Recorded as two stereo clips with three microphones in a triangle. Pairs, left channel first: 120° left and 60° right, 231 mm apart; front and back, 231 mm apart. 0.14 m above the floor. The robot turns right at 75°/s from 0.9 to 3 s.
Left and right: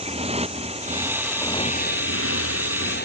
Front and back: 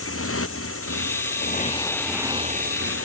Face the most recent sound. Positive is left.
turn(degrees=160)